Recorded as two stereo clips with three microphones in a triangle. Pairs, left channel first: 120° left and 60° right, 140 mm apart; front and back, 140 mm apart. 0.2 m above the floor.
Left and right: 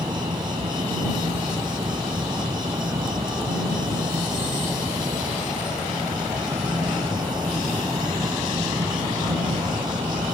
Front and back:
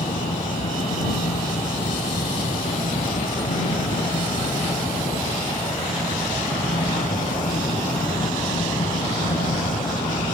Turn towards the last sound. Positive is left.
turn(degrees=0)